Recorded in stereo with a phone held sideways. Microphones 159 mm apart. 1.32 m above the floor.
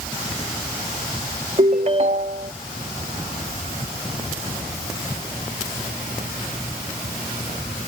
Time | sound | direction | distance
1.6 | a ringtone | 45° right (ahead or behind) | ?